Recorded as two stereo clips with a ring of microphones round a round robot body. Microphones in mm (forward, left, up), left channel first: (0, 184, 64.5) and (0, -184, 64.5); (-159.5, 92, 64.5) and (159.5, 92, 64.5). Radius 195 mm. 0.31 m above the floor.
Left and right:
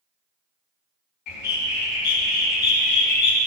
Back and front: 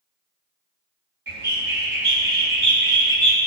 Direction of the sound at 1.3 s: 50° left.